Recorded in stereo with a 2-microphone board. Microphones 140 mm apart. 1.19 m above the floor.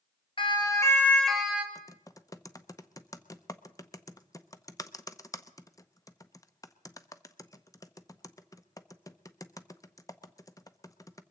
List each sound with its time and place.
0.4 s a siren: 40° left (ahead or behind), 2 m; by 1.6 s 10° right (ahead or behind), 2.5 m
1.8 s typing on a keyboard: 25° left (ahead or behind), 0.7 m